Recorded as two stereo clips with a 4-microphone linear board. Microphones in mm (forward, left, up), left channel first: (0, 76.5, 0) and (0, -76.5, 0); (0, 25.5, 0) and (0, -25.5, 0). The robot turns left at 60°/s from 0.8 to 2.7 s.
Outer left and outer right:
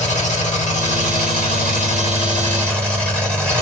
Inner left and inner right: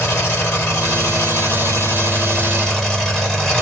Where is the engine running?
125° left, 2.5 m; by 3.6 s 10° left, 2.5 m.